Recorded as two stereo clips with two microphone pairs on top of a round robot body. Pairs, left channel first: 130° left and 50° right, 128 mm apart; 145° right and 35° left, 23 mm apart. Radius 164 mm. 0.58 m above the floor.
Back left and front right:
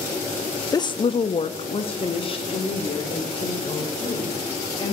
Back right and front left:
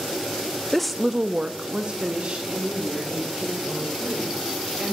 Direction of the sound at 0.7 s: 165° left.